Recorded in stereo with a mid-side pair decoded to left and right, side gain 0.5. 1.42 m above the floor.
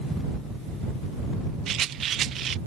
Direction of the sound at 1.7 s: 60° right.